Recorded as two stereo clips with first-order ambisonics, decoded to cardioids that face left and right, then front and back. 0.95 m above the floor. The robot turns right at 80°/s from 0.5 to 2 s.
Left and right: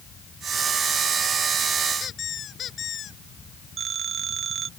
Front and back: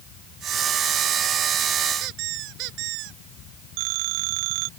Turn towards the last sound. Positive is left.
turn(degrees=-155)